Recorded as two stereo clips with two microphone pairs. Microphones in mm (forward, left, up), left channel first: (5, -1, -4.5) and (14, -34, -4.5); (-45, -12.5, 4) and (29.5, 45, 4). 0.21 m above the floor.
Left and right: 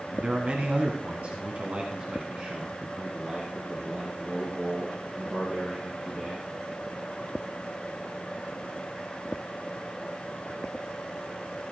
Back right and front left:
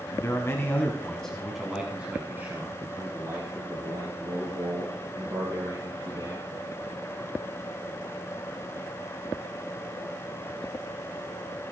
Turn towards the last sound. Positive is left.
turn(degrees=-5)